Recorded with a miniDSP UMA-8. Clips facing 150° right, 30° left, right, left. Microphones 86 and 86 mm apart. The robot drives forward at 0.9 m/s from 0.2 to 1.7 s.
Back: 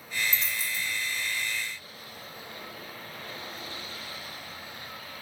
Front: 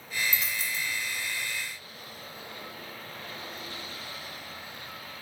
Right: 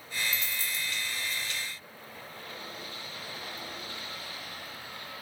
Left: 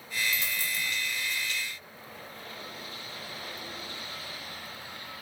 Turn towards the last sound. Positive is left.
turn(degrees=150)